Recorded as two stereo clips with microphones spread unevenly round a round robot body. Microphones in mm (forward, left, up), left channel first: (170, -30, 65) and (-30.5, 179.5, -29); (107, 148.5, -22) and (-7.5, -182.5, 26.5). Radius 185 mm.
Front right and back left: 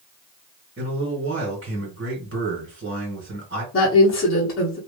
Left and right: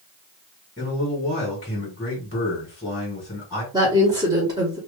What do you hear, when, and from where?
0.8 s a man speaking: 130° left, 1.8 m
3.7 s a woman speaking: 30° right, 1.3 m